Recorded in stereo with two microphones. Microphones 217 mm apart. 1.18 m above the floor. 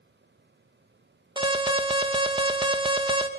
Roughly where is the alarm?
Right.